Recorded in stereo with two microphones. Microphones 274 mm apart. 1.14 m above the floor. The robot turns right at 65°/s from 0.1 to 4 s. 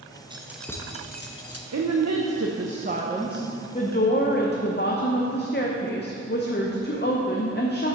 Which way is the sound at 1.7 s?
110° right.